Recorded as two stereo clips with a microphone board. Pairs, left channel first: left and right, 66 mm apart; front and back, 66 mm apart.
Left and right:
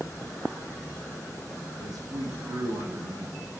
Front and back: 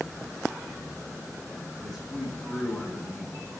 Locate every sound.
1.8 s a man speaking: 90° right, 7.5 m